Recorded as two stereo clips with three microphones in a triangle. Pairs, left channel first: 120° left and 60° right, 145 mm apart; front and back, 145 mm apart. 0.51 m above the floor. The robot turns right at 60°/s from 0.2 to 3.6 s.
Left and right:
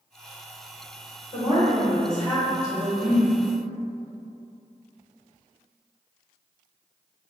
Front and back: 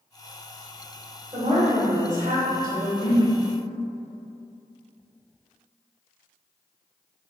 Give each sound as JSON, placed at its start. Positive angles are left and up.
{"t": 1.3, "sound": "a woman speaking", "azimuth_deg": 150, "distance_m": 1.6}
{"t": 3.0, "sound": "a whoosh", "azimuth_deg": -15, "distance_m": 1.4}